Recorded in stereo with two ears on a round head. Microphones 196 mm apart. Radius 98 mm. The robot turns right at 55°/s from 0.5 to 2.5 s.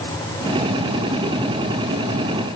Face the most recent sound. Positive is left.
No sound to turn to.